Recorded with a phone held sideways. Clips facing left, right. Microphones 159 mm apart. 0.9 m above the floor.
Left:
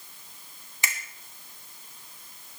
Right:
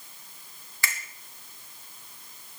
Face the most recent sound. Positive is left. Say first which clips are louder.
# even
turn(degrees=20)  # may be behind; listen again after turning